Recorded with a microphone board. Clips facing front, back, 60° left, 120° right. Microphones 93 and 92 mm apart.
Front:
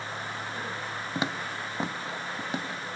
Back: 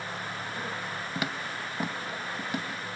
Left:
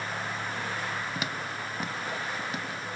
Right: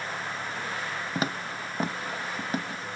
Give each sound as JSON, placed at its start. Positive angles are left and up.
{"t": 1.1, "sound": "footsteps", "azimuth_deg": -65, "distance_m": 0.9}